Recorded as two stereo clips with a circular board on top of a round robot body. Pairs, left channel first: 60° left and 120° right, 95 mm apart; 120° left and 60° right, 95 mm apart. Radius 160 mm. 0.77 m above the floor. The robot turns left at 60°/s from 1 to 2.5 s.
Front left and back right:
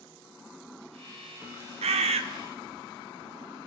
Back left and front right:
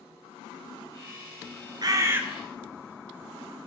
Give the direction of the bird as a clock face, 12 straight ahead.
4 o'clock.